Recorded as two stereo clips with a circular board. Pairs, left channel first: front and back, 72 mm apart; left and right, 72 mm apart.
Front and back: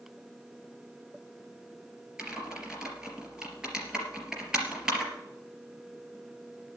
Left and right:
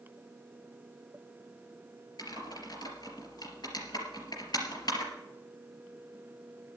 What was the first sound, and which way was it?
Typing on a keyboard, 100° left.